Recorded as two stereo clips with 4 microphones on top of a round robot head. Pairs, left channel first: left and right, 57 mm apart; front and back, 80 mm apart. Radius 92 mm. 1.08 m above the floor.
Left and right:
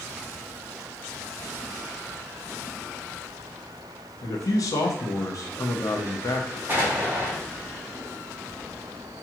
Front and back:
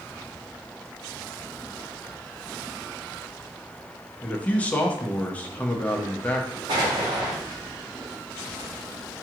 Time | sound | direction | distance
4.2 | a man speaking | 70° left | 0.8 m
6.7 | an explosion | 145° right | 1.0 m